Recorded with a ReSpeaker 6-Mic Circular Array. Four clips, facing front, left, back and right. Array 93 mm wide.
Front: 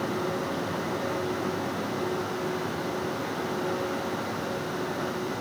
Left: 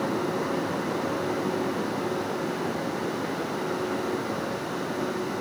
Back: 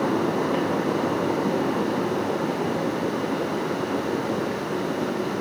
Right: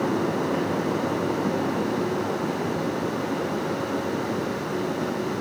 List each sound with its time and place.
Only background noise.